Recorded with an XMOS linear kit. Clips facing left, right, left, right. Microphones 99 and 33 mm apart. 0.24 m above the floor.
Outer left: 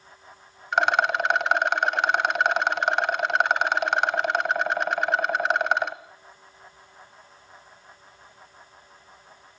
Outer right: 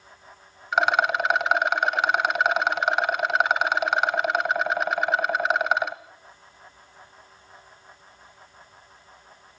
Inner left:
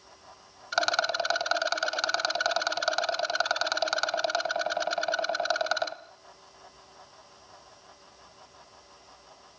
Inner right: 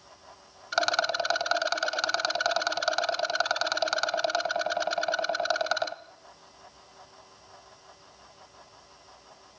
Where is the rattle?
Centre (ahead or behind), 0.9 m.